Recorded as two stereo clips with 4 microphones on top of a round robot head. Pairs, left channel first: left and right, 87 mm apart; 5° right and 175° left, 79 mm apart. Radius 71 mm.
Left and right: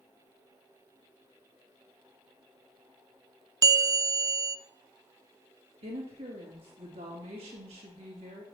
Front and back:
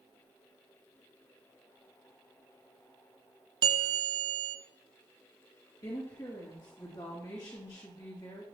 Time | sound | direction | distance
3.6 | a bell | 140° right | 0.6 m
5.8 | a woman speaking | 60° right | 2.5 m